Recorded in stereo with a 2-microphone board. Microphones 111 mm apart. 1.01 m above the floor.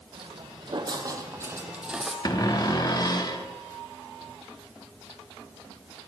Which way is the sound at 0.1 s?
55° right (ahead or behind).